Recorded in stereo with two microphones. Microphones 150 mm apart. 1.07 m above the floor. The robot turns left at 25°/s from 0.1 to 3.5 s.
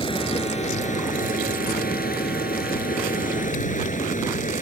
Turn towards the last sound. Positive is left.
turn(degrees=60)